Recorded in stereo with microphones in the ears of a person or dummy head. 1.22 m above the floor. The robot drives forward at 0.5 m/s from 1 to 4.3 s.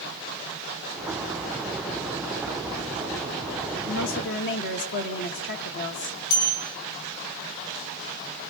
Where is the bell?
80° left, 8 m.